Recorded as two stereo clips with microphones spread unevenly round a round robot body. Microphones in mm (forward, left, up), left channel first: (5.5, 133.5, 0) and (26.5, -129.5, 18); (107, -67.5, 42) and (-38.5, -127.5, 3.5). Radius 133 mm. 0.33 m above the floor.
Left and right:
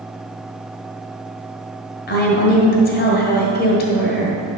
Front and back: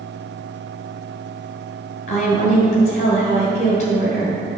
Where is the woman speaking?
70° left, 1.5 m.